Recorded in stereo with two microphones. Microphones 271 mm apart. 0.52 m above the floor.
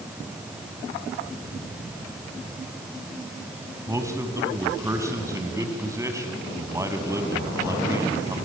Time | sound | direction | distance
3.9 | a man speaking | 10° right (ahead or behind) | 3 m